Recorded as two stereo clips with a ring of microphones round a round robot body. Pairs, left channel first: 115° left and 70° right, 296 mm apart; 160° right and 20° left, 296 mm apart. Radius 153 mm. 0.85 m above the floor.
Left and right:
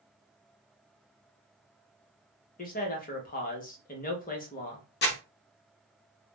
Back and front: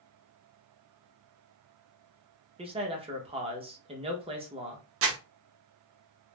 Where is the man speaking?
80° left, 0.9 m.